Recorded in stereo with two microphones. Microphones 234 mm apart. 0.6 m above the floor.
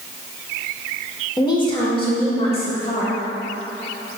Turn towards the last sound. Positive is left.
turn(degrees=25)  # may be behind; listen again after turning